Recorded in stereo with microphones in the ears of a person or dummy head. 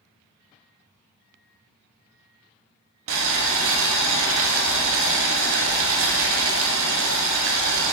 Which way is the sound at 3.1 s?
65° right (ahead or behind).